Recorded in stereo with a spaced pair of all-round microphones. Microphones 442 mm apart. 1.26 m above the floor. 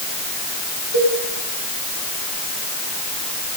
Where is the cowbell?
40° right (ahead or behind), 9.5 m.